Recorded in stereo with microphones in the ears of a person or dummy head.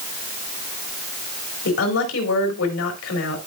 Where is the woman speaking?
75° left (ahead or behind), 3 m.